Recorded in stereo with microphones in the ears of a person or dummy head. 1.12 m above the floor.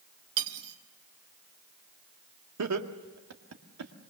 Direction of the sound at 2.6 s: 85° right.